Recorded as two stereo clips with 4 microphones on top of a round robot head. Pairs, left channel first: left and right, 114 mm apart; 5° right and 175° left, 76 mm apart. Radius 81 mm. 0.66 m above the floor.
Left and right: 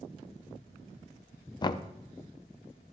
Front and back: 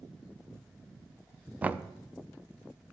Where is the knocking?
115° left, 0.6 m.